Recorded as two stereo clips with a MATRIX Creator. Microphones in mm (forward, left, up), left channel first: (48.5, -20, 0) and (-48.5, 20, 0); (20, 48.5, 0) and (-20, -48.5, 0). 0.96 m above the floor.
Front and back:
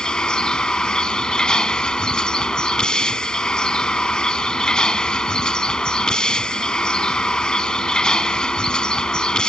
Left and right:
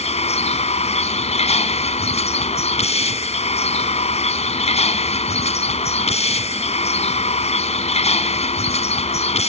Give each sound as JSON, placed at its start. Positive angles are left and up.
{"t": 0.0, "sound": "a vehicle", "azimuth_deg": 60}